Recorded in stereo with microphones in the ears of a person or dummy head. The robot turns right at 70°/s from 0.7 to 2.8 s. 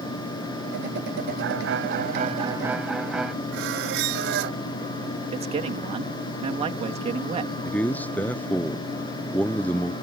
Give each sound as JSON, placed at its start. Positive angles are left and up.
{"t": 1.4, "sound": "a violin", "azimuth_deg": -105}
{"t": 3.5, "sound": "a squeak", "side_deg": -60}
{"t": 5.3, "sound": "a man speaking", "side_deg": -25}
{"t": 7.7, "sound": "a man speaking", "side_deg": 5}